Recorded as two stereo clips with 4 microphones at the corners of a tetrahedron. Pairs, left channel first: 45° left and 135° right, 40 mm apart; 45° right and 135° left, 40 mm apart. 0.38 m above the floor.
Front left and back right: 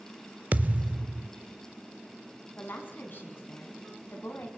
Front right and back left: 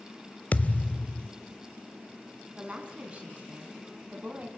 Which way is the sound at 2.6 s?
80° left.